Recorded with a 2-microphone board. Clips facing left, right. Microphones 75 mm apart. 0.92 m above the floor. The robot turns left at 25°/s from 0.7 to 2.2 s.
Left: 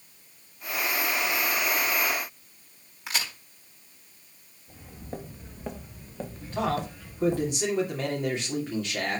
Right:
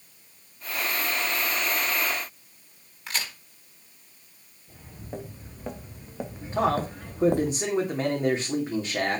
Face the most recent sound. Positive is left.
turn(degrees=-20)  # may be behind; listen again after turning